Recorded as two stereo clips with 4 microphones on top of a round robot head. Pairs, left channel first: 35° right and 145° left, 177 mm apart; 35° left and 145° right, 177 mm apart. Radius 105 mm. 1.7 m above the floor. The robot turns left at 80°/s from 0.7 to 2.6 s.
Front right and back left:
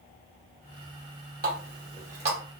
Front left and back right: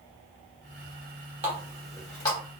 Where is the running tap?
170° left, 0.9 m; by 2.4 s 90° left, 0.9 m.